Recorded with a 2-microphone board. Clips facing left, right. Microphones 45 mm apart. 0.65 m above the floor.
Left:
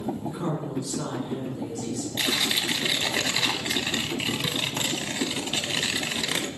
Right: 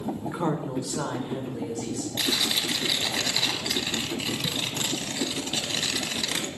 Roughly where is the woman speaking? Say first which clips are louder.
Right 2 dB; right.